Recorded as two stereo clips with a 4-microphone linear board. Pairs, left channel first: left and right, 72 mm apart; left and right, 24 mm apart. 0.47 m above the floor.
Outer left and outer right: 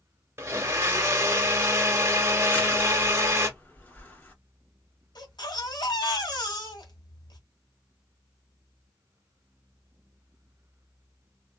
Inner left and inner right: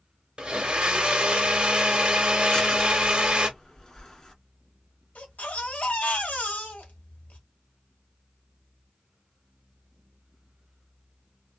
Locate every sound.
0.4 s a blender: 35° right (ahead or behind), 1.4 m
2.5 s crushing: 25° left (ahead or behind), 1.9 m
5.2 s a baby crying: 75° left (ahead or behind), 1.7 m